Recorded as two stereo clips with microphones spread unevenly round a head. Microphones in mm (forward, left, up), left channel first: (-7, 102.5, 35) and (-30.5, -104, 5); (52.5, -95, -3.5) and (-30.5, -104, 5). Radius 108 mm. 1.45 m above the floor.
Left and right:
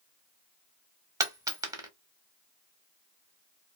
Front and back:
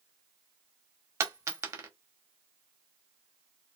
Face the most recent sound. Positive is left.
turn(degrees=-170)